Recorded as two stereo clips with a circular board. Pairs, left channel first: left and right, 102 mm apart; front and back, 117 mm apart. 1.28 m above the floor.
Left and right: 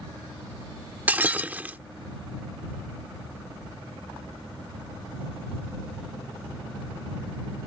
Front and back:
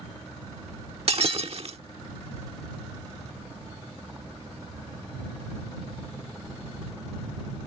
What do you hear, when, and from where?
1.1 s breaking glass: 160° right